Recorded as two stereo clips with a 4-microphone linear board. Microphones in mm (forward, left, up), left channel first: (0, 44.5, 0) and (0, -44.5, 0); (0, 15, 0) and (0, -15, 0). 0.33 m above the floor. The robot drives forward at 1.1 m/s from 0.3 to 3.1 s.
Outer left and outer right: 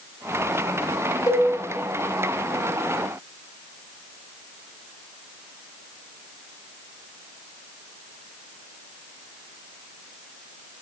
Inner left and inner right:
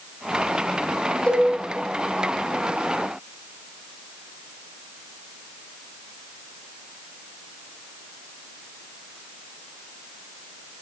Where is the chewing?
I don't hear chewing.